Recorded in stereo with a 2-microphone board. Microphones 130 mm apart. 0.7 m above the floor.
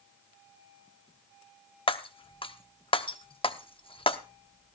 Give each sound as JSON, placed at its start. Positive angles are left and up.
{"t": 1.9, "sound": "breaking glass", "side_deg": 40, "distance_m": 0.8}